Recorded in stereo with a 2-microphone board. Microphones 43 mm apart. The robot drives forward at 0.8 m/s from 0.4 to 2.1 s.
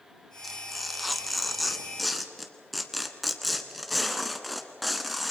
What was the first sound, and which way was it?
Tearing paper, centre (ahead or behind).